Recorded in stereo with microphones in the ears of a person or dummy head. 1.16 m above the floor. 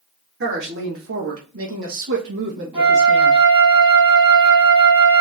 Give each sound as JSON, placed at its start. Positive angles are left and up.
{"t": 0.4, "sound": "a woman speaking", "side_deg": -65, "distance_m": 1.7}
{"t": 2.7, "sound": "a flute", "side_deg": -20, "distance_m": 2.5}